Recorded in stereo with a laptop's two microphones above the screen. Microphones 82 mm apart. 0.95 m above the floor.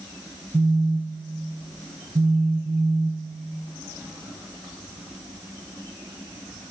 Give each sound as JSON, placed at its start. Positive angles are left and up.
{"t": 0.5, "sound": "a phone buzzing", "side_deg": -75, "distance_m": 0.7}